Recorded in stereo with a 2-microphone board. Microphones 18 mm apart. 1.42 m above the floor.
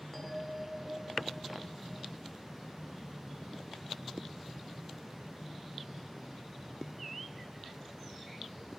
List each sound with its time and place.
0.1 s a bell: 10° left (ahead or behind), 2.5 m